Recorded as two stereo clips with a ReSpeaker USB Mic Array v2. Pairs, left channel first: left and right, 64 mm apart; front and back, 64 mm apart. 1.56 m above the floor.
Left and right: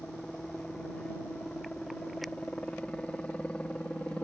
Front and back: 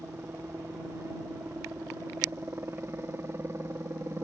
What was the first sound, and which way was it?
A helicopter, 155° left.